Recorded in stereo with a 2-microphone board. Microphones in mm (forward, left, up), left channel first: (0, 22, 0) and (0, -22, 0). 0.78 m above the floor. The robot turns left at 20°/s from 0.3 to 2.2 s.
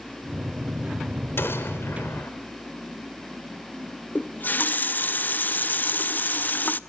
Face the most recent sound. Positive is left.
turn(degrees=40)  # may be behind; listen again after turning